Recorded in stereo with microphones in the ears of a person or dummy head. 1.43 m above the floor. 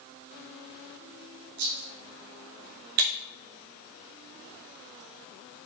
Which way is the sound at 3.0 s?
50° right (ahead or behind).